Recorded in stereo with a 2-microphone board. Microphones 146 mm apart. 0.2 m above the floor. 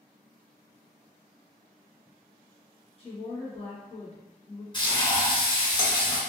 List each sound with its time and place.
3.0 s a woman speaking: 45° left (ahead or behind), 1.7 m
4.7 s frying: 30° left (ahead or behind), 1.4 m